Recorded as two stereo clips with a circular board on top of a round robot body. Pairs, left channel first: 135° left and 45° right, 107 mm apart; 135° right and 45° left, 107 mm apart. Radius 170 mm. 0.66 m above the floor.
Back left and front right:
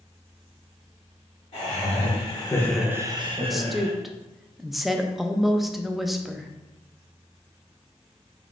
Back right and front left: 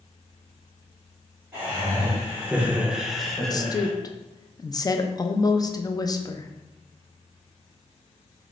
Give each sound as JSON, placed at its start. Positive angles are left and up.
{"t": 1.5, "sound": "laughter", "azimuth_deg": 125, "distance_m": 1.7}
{"t": 3.5, "sound": "a woman speaking", "azimuth_deg": -135, "distance_m": 0.6}